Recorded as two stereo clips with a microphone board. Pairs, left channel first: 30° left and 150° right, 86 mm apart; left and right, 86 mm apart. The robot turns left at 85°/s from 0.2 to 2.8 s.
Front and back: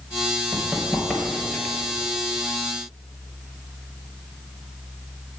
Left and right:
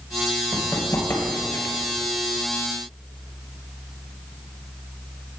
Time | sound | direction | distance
0.5 | running footsteps | 140° left | 2.0 m